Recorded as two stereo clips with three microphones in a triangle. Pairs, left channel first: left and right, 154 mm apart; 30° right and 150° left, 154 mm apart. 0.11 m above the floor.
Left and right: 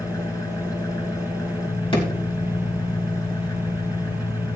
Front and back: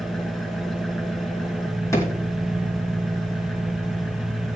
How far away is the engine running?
About 1.3 m.